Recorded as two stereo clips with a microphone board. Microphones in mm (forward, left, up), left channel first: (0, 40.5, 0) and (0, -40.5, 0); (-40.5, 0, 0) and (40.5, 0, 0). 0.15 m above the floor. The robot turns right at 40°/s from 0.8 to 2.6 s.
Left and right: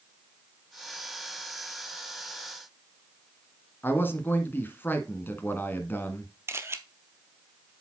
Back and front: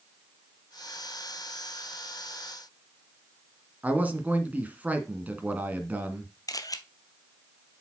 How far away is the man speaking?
About 1.5 m.